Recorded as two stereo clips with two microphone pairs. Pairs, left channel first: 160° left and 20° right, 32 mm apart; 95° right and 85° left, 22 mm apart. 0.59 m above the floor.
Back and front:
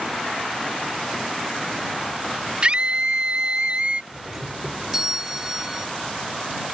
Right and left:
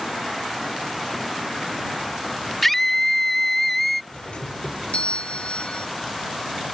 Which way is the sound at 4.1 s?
95° right.